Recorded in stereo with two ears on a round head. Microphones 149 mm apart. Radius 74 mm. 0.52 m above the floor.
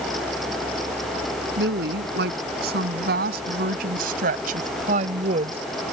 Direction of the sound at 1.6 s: 65° right (ahead or behind).